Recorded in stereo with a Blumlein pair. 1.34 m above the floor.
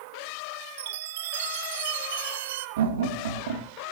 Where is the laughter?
55° right, 3 m.